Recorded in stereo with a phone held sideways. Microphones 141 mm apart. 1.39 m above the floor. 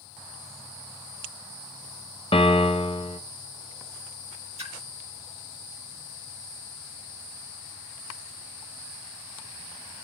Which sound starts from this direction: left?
A piano, at 2.3 s.